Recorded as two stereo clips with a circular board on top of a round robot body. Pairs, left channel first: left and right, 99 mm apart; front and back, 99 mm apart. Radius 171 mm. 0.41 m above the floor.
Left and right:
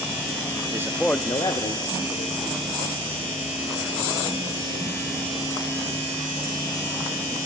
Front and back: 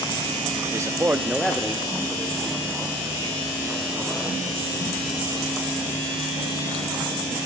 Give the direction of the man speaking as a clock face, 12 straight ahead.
4 o'clock.